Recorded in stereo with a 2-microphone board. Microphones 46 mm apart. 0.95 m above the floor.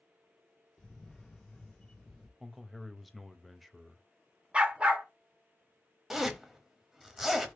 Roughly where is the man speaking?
Centre.